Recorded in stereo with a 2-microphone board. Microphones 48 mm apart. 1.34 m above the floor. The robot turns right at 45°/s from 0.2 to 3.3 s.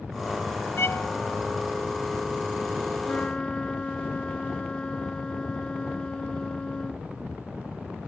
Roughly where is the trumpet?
Left.